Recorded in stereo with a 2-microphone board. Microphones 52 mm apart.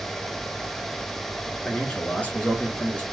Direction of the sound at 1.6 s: 25° left (ahead or behind).